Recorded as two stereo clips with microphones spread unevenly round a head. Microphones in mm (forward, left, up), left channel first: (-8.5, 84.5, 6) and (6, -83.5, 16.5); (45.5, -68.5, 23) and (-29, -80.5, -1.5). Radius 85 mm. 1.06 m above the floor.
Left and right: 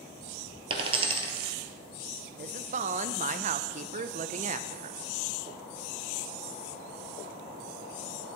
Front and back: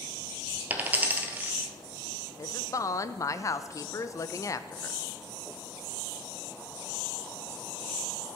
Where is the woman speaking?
45° right, 0.5 m.